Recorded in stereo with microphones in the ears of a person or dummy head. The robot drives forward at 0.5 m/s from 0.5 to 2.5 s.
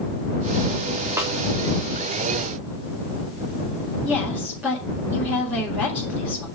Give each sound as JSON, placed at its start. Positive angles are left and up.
{"t": 1.2, "sound": "a snare drum", "side_deg": -20, "distance_m": 3.0}
{"t": 4.0, "sound": "a woman speaking", "side_deg": -10, "distance_m": 5.5}